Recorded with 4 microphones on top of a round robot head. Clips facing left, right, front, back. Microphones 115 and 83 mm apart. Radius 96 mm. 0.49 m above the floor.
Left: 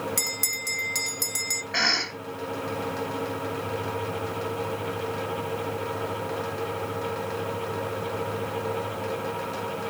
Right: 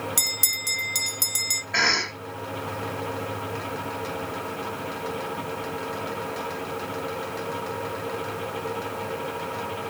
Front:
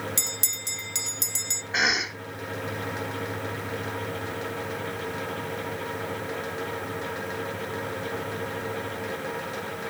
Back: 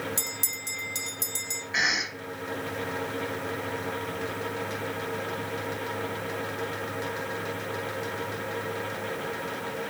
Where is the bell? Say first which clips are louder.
Left 1 dB, even; 10° right, 0.7 m.